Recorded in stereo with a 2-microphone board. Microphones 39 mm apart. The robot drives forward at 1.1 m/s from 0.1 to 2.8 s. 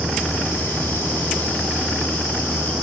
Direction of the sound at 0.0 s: 70° right (ahead or behind).